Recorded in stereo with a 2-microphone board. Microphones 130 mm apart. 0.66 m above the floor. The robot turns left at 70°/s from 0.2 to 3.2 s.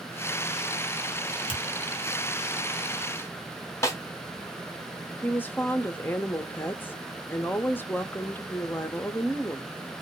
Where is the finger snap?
40° left (ahead or behind), 1.4 m; by 1.6 s 35° left (ahead or behind), 1.4 m.